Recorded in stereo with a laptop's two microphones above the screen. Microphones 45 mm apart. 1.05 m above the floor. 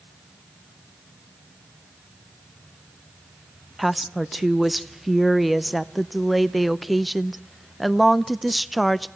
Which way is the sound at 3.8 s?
Centre (ahead or behind).